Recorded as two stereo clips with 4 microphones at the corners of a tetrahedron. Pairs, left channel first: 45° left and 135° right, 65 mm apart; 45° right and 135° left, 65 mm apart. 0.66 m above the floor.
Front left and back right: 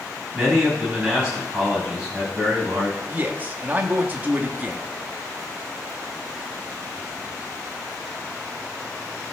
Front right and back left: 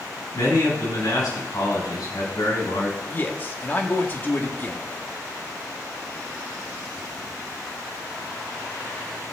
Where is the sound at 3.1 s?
85° right, 1.5 m.